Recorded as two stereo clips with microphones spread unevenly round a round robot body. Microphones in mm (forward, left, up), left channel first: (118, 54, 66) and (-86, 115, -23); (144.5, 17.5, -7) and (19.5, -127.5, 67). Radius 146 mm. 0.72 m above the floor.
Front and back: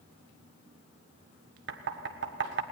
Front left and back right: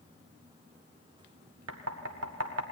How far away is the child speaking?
No child speaking in this recording.